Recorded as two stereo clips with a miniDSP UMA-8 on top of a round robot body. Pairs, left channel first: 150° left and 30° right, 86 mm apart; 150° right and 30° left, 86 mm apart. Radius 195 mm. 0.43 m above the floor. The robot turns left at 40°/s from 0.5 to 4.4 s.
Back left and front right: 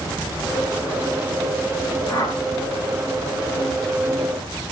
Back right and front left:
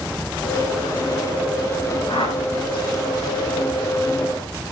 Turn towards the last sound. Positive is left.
turn(degrees=100)